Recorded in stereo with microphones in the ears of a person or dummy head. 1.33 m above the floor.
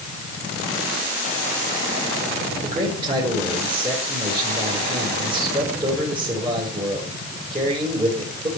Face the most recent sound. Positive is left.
turn(degrees=-35)  # may be behind; listen again after turning